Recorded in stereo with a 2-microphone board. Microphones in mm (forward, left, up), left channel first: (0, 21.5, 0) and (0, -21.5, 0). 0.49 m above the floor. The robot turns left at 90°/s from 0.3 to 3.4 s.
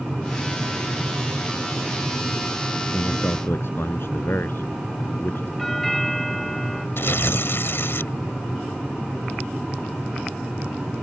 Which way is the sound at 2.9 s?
105° left.